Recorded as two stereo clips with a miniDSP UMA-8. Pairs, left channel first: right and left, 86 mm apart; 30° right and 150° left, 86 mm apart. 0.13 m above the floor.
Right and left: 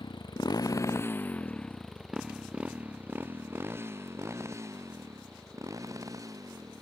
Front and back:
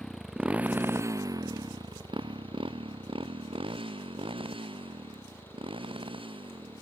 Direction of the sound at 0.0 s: 115° right.